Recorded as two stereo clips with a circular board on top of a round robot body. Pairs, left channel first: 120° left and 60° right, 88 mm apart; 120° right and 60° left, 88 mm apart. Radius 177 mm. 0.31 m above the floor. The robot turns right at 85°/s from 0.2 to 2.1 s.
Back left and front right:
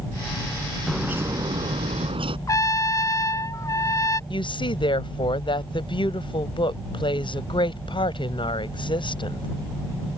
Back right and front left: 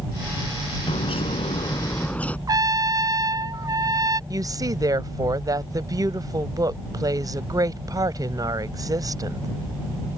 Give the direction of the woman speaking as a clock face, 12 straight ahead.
8 o'clock.